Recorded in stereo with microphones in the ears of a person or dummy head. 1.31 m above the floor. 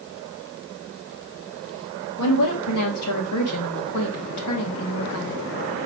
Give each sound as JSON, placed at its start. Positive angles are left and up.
{"t": 2.2, "sound": "a woman speaking", "side_deg": 85, "distance_m": 1.9}